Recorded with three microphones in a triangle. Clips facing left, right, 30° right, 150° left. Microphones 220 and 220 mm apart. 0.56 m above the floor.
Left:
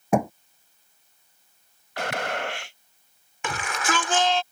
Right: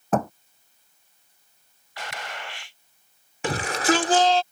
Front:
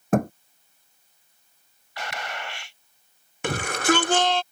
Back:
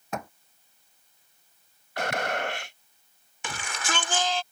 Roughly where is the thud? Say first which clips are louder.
Left 2 dB, front 14 dB; ahead.